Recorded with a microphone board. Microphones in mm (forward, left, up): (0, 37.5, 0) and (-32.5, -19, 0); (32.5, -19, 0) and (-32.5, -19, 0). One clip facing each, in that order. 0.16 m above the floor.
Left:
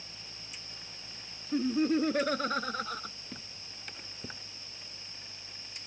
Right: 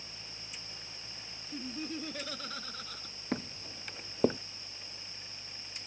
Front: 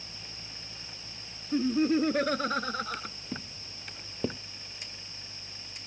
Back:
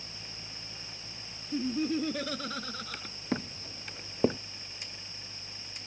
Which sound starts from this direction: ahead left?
Laughter, at 1.5 s.